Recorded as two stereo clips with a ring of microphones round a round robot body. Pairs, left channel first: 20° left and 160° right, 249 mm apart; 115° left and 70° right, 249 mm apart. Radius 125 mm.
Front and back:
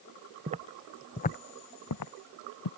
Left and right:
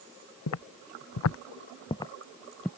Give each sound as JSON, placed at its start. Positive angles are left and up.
{"t": 0.5, "sound": "footsteps", "azimuth_deg": 140}